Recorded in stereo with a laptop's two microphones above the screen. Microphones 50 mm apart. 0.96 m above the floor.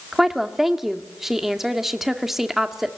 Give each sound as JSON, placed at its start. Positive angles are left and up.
{"t": 0.1, "sound": "a woman speaking", "side_deg": -5, "distance_m": 2.0}